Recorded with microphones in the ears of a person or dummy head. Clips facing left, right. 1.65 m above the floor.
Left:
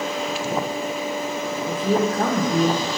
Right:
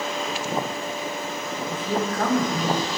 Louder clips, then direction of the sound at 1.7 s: Left 6 dB; 30° left (ahead or behind).